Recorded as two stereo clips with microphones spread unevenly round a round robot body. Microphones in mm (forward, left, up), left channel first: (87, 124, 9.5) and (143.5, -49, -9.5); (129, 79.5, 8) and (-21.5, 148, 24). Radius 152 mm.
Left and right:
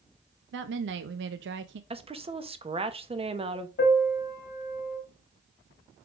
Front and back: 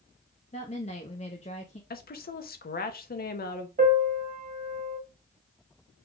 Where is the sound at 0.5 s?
85° right, 0.5 m.